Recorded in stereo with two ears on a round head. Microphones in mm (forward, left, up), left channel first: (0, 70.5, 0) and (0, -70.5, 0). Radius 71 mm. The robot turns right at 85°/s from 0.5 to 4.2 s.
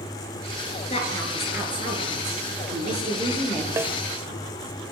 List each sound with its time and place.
0.9 s a woman speaking: 140° left, 6.5 m; by 3.7 s 10° left, 6.5 m
3.8 s a snare drum: 20° right (ahead or behind), 1.4 m; by 4.0 s centre (ahead or behind), 1.4 m